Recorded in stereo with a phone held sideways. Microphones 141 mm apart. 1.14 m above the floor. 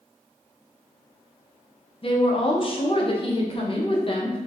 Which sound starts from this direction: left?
A woman speaking, at 2.0 s.